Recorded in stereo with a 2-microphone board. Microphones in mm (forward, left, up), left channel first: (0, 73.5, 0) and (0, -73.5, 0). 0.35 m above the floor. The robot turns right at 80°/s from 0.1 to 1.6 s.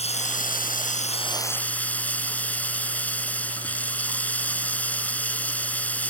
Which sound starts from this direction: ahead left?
Running water, at 0.0 s.